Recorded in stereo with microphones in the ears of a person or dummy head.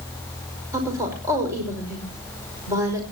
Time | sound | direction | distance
0.7 | a woman speaking | 20° right (ahead or behind) | 5 m